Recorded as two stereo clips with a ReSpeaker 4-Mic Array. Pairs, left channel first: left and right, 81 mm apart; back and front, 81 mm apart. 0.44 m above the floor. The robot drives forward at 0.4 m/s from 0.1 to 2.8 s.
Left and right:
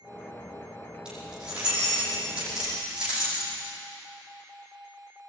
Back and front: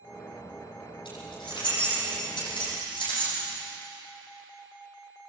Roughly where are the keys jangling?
Behind.